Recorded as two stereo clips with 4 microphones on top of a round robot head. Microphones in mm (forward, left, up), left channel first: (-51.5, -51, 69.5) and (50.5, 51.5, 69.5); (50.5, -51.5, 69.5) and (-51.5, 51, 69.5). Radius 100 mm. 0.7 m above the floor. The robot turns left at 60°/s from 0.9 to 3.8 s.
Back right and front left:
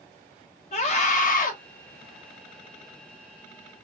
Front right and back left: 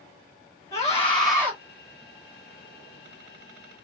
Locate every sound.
0.7 s a scream: 115° right, 1.4 m; by 1.5 s 155° right, 1.4 m